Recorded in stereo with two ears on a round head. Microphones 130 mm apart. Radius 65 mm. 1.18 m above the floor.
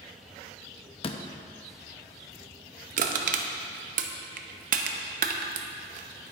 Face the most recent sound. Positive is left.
turn(degrees=-55)  # may be behind; listen again after turning